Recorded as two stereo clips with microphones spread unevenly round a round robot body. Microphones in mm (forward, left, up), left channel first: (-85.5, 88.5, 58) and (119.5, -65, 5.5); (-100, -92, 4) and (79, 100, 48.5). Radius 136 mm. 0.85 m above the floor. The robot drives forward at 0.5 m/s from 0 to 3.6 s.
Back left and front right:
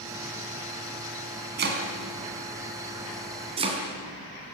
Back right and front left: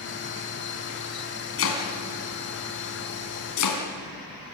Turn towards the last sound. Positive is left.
turn(degrees=-110)